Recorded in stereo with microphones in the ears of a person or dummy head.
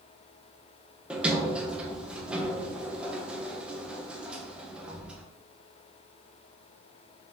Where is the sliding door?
5° right (ahead or behind), 0.7 m.